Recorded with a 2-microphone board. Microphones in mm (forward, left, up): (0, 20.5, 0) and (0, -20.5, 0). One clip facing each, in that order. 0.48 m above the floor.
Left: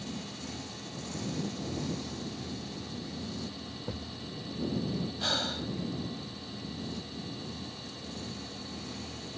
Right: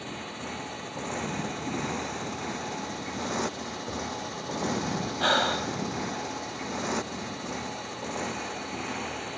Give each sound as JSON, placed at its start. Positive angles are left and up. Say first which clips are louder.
{"t": 0.0, "sound": "a motorcycle", "louder": "right 4 dB", "side_deg": -40}
{"t": 3.9, "sound": "a thud", "louder": "right 6 dB", "side_deg": 0}
{"t": 5.2, "sound": "breathing", "louder": "right 11 dB", "side_deg": -45}